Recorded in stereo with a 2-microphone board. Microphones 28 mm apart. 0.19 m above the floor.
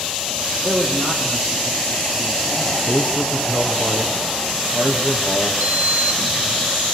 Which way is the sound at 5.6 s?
70° right (ahead or behind).